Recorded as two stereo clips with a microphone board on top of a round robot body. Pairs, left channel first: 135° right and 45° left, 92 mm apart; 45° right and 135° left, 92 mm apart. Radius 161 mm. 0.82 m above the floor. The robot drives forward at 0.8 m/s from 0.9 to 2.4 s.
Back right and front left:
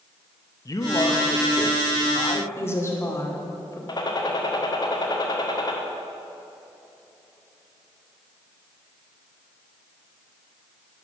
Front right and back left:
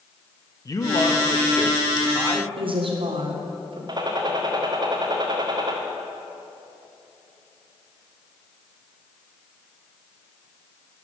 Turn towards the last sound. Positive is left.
turn(degrees=180)